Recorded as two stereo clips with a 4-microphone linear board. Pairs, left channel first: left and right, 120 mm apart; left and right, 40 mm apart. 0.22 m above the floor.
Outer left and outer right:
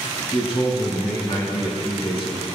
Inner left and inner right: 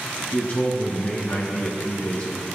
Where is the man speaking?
45° left (ahead or behind), 2 m.